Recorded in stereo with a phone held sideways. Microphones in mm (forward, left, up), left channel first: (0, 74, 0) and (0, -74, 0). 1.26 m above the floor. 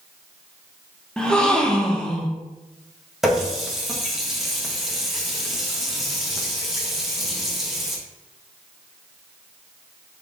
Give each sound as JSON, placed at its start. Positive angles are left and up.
{"t": 1.2, "sound": "a gasp", "side_deg": 5, "distance_m": 0.6}
{"t": 3.2, "sound": "a running tap", "side_deg": 0, "distance_m": 0.9}